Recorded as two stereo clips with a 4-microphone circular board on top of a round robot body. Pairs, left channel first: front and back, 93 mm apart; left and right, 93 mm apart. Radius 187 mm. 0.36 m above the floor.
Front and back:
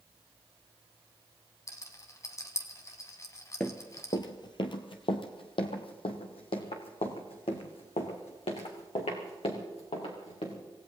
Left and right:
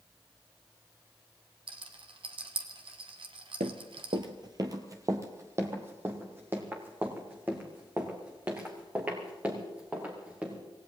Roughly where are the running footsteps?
Right.